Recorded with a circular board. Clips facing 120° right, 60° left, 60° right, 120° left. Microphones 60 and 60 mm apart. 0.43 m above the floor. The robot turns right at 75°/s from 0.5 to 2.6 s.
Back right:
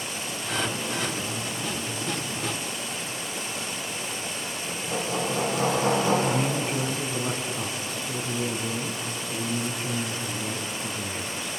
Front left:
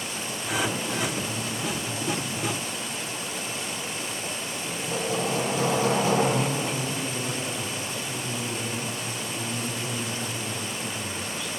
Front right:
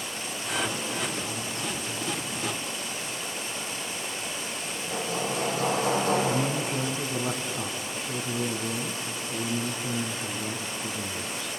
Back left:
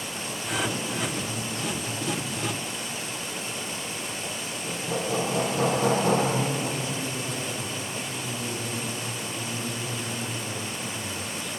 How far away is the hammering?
About 10 m.